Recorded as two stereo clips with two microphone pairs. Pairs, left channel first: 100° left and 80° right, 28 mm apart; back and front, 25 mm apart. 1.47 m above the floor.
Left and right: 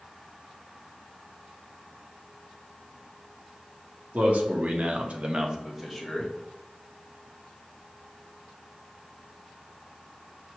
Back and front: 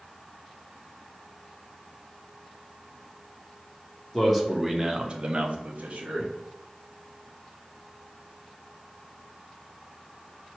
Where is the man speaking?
95° right, 1.0 m; by 6.3 s 15° left, 1.0 m.